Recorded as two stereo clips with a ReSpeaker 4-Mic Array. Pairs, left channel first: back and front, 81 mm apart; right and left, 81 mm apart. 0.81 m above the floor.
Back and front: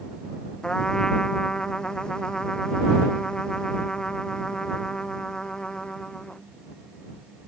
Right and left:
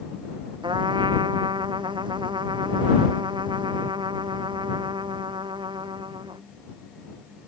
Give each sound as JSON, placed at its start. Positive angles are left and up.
{"t": 0.6, "sound": "a trumpet", "azimuth_deg": 100}